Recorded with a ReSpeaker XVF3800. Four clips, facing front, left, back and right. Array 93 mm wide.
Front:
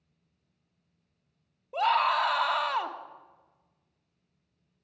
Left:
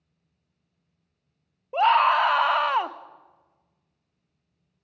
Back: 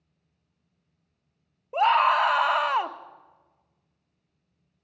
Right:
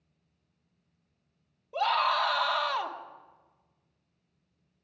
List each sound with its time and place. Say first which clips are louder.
1.7 s a scream: left 8 dB, back 5 dB; 120° left, 0.8 m